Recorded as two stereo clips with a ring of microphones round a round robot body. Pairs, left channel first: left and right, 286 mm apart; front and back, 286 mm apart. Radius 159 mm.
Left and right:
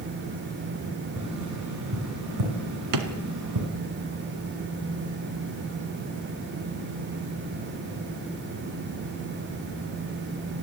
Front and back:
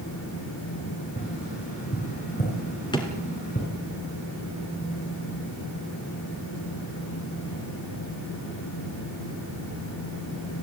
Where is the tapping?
70° right, 6 m.